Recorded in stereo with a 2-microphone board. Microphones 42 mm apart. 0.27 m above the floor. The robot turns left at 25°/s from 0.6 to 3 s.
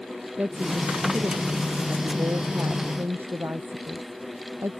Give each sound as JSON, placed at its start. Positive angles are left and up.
{"t": 0.4, "sound": "a woman speaking", "azimuth_deg": -45}